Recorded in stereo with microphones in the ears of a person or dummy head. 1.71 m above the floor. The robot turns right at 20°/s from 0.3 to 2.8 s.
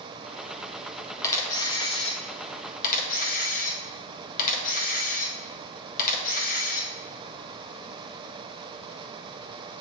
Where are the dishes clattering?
I don't hear dishes clattering.